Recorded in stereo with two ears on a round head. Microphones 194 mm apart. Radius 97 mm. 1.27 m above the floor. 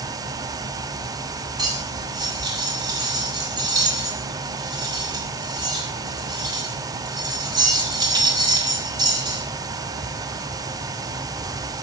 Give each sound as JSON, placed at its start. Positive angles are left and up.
{"t": 1.6, "sound": "cutlery clinking", "side_deg": -20, "distance_m": 4.0}